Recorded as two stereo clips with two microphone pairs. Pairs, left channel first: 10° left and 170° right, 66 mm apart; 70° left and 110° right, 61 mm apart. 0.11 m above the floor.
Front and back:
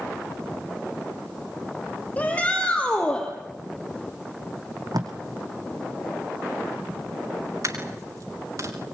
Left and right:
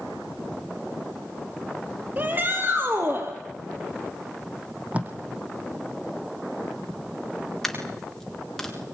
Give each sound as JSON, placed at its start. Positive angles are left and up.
{"t": 2.2, "sound": "a shout", "azimuth_deg": -55, "distance_m": 4.5}
{"t": 4.9, "sound": "tape being pulled", "azimuth_deg": -175, "distance_m": 3.0}
{"t": 7.6, "sound": "a dropped coin", "azimuth_deg": 155, "distance_m": 6.5}